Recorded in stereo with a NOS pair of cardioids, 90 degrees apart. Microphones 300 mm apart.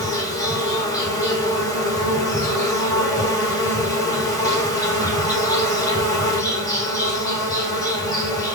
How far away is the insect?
About 1.0 m.